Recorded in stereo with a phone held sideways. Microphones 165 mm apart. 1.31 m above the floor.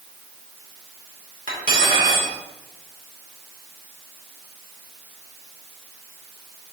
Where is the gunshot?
I don't hear a gunshot.